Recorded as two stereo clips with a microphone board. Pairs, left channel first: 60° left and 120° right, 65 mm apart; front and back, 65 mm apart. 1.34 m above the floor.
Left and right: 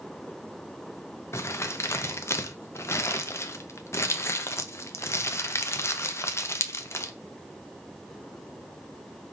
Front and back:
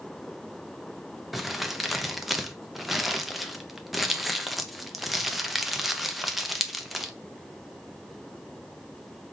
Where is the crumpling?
95° left, 0.5 m.